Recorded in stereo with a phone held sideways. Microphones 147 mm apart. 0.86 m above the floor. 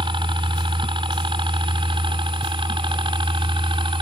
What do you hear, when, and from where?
0.0 s a helicopter: 35° right (ahead or behind)